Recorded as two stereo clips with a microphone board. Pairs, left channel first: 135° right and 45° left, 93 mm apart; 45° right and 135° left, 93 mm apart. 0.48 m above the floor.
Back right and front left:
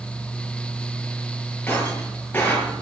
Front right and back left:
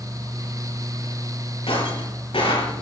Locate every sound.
1.7 s breaking glass: 65° right, 6.5 m